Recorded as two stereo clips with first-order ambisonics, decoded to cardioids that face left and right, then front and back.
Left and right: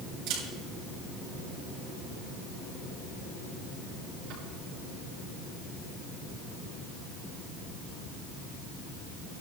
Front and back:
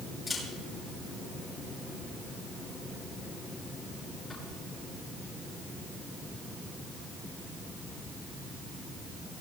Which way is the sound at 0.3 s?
80° right.